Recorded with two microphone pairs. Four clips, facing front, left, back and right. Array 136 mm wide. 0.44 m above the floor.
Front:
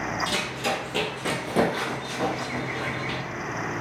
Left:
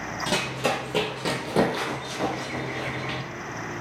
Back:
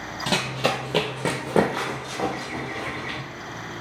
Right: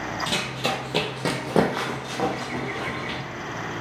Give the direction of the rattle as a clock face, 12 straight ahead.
No rattle in this recording.